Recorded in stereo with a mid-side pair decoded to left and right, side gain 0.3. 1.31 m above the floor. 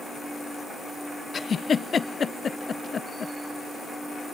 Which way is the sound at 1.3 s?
55° left.